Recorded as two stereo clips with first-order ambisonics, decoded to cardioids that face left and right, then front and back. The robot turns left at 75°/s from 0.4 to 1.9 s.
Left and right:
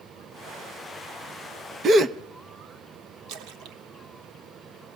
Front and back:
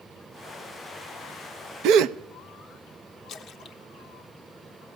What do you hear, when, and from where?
1.8 s a gasp: 145° right, 0.6 m; by 2.2 s 150° right, 0.6 m
3.3 s a splash: 65° right, 1.1 m